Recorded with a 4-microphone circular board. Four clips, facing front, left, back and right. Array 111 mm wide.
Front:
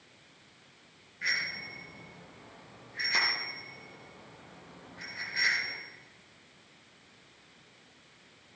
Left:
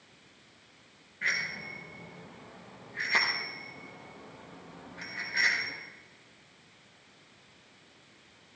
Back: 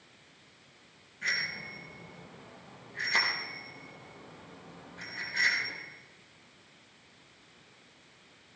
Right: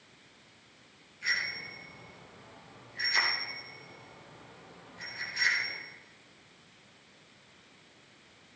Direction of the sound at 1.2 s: 80° left.